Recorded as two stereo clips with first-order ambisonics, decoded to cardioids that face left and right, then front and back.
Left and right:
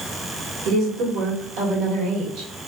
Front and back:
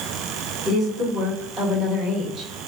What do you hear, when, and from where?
0.7 s a woman speaking: 105° right, 1.8 m